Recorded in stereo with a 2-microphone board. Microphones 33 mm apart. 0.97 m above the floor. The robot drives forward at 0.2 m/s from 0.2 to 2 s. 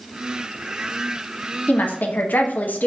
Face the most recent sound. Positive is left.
turn(degrees=70)  # may be behind; listen again after turning